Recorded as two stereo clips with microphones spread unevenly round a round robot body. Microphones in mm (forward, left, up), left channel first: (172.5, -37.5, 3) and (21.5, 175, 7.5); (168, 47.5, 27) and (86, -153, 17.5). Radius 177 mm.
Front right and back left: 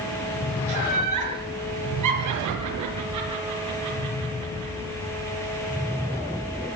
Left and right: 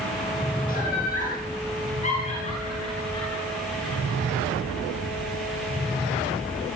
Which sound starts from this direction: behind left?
Laughter, at 0.7 s.